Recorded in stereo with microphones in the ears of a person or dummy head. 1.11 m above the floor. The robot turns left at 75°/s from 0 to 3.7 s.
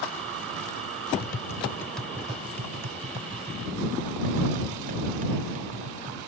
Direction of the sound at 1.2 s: 50° left (ahead or behind).